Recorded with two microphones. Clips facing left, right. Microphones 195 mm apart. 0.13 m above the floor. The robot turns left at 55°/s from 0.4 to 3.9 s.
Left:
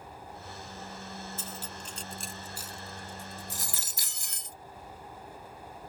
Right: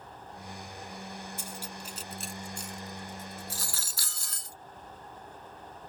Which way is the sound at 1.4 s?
15° right (ahead or behind).